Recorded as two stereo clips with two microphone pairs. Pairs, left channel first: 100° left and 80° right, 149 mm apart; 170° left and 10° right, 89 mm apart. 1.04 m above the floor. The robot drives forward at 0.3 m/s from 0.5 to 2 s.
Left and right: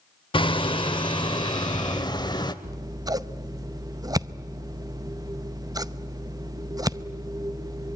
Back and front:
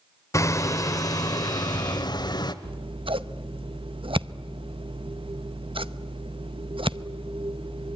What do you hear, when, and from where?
0.3 s hammering: 135° left, 0.9 m; by 2.5 s 155° left, 1.2 m
2.6 s scissors: 20° right, 0.6 m